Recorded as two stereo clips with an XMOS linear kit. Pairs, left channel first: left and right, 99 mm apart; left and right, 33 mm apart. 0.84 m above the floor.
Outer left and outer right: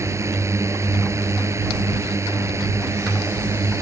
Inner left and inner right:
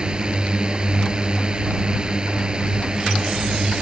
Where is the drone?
30° right (ahead or behind).